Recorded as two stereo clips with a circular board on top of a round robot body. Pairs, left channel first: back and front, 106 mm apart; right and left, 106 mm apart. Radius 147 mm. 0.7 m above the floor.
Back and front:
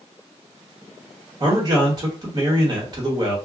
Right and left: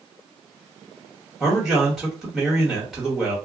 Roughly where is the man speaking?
Ahead.